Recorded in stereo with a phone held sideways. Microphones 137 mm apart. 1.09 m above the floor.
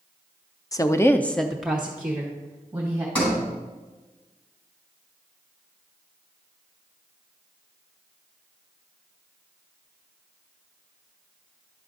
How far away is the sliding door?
About 4 m.